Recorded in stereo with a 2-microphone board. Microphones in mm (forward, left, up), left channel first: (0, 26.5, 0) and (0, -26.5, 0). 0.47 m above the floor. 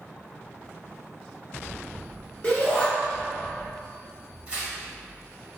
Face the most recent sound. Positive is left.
turn(degrees=-20)  # may be behind; listen again after turning